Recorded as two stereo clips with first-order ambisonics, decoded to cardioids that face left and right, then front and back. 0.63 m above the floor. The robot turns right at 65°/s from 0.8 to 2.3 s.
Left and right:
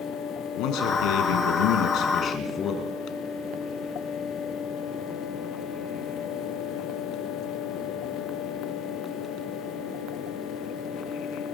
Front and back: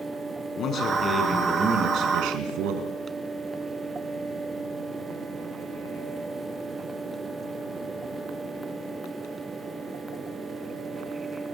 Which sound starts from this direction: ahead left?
A man speaking, at 0.6 s.